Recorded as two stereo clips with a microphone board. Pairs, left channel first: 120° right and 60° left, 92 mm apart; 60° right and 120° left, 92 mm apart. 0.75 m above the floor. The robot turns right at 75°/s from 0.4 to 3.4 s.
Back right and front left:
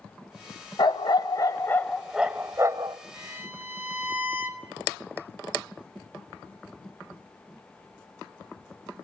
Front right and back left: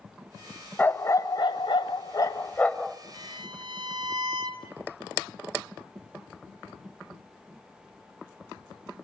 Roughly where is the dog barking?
Behind right.